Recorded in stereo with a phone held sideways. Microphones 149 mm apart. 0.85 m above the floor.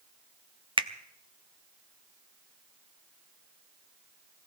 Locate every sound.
0.8 s a finger snap: 35° right (ahead or behind), 0.7 m